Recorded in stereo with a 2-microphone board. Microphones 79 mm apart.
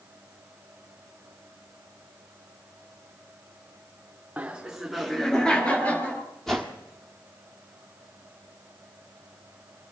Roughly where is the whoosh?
Centre.